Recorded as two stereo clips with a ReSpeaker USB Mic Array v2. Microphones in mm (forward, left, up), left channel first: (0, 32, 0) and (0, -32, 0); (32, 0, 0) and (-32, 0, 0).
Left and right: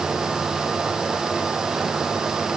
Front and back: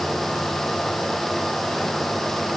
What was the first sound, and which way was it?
Only background noise.